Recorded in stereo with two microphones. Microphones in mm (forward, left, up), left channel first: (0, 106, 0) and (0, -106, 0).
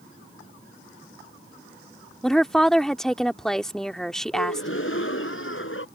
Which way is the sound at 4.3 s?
65° left (ahead or behind).